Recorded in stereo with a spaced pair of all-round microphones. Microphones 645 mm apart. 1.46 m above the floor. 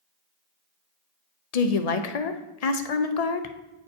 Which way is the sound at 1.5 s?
70° left (ahead or behind).